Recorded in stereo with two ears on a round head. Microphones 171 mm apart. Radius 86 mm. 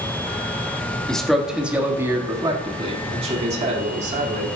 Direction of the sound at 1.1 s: 5° left (ahead or behind).